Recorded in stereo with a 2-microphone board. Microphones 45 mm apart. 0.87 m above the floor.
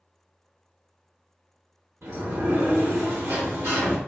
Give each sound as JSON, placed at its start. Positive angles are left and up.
{"t": 2.0, "sound": "a sliding door", "side_deg": -60, "distance_m": 0.8}